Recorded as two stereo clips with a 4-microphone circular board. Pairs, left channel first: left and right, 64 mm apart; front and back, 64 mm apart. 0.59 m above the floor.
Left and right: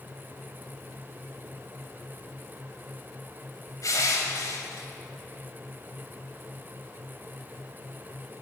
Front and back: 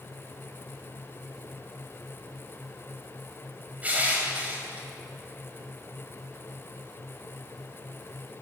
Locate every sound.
3.8 s crushing: 115° left, 2.5 m